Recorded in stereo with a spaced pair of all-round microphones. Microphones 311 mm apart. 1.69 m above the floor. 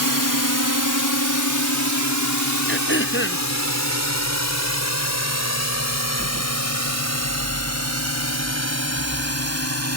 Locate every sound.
0.0 s a drone: 75° left (ahead or behind); by 10.0 s 50° left (ahead or behind)
2.7 s throat clearing: 35° left (ahead or behind)